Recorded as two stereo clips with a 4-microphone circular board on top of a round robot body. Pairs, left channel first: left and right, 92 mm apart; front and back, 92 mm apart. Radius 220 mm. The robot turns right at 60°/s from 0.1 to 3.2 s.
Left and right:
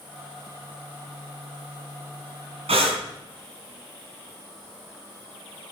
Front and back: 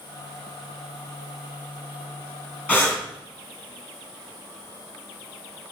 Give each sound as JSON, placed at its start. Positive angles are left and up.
{"t": 2.7, "sound": "breathing", "azimuth_deg": -75, "distance_m": 2.0}